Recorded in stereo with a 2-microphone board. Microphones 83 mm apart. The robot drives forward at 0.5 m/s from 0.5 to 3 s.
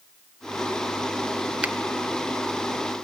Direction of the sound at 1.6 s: 15° right (ahead or behind).